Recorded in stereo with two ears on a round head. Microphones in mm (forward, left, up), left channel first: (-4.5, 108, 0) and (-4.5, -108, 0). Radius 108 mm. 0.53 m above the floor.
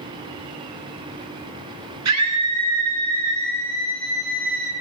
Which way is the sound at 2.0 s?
80° right.